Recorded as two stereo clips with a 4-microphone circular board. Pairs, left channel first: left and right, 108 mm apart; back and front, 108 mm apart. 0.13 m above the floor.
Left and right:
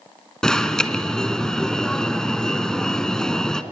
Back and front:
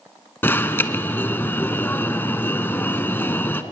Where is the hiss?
No hiss in this recording.